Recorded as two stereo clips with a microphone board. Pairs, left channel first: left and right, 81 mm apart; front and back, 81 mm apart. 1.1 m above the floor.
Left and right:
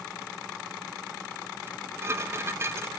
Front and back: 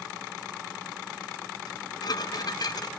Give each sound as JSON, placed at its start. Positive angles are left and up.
{"t": 1.7, "sound": "dishes clattering", "azimuth_deg": -35, "distance_m": 0.6}